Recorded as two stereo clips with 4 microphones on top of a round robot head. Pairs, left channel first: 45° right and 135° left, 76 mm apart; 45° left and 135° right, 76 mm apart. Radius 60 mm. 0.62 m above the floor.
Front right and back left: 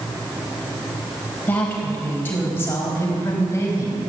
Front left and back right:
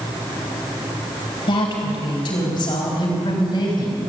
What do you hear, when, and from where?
1.5 s a woman speaking: 25° left, 4 m; by 4.0 s 10° left, 4.5 m